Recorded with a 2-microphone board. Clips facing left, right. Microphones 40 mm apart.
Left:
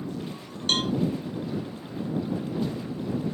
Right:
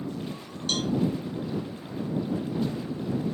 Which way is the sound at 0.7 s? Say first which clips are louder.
Left 3 dB; 45° left (ahead or behind).